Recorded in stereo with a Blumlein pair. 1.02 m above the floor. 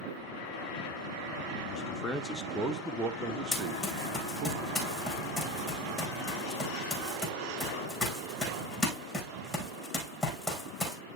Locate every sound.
1.7 s a man speaking: 30° left, 1.2 m; by 4.5 s 40° right, 1.9 m
3.5 s running footsteps: 10° left, 4 m